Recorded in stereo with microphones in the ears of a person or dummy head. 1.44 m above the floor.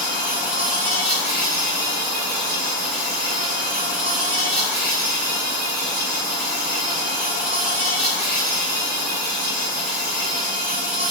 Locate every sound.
0.0 s an insect: 45° right (ahead or behind), 1.2 m